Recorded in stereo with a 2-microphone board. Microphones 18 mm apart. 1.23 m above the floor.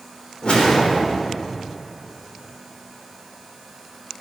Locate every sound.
0.4 s a whoosh: 70° left (ahead or behind), 3.5 m